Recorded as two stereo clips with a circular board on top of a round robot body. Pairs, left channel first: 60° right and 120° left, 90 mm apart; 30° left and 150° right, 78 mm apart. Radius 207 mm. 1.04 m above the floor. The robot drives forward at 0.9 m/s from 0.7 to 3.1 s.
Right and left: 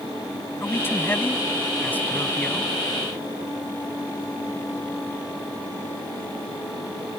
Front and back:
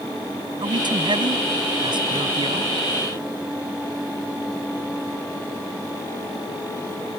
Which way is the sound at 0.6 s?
125° right.